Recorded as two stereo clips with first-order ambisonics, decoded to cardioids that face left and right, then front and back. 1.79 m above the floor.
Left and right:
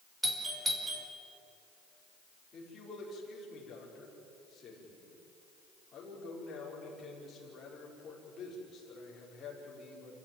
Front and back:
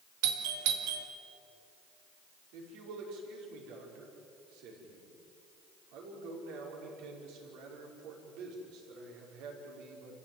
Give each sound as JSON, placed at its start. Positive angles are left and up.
{"t": 0.2, "sound": "a doorbell", "azimuth_deg": -170, "distance_m": 2.5}
{"t": 2.5, "sound": "a man speaking", "azimuth_deg": 160, "distance_m": 6.0}